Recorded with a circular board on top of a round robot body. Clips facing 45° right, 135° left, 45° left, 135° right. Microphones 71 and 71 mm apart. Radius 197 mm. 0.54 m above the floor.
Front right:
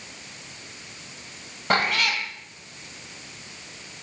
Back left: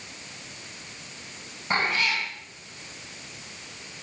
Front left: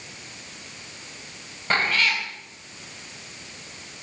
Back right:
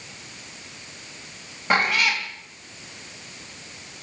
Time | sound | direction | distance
1.7 | a cat meowing | 55° right | 2 m